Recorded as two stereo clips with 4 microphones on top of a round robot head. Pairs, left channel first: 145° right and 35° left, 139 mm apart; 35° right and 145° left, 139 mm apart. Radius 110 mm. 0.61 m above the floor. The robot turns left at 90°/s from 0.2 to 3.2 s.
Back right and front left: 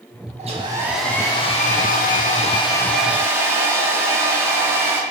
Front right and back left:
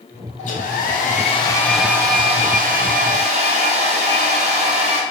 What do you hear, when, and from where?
0.4 s a hair dryer: straight ahead, 0.6 m; by 5.0 s 105° left, 0.6 m